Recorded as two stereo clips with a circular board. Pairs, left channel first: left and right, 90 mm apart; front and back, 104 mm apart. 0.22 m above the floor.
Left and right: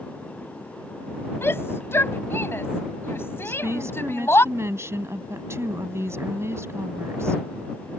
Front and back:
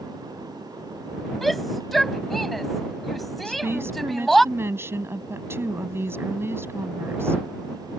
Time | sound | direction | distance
1.4 | a shout | 85° left | ?
3.5 | a woman speaking | 130° right | ?